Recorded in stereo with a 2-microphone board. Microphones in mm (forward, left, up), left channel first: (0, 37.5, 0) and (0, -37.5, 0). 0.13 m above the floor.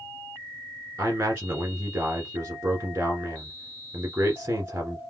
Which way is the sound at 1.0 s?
30° right (ahead or behind).